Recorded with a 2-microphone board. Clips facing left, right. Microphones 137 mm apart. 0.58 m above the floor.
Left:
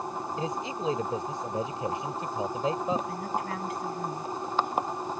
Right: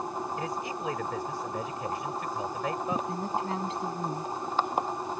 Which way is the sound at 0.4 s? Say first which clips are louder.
Left 2 dB; 25° left (ahead or behind).